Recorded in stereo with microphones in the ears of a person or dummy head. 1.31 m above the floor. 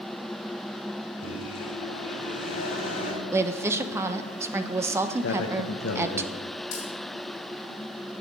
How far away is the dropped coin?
About 3 m.